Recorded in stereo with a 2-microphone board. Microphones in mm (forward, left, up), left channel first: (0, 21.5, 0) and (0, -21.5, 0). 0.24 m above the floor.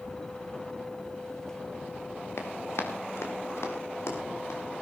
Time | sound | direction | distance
2.4 | running footsteps | 80° left | 4 m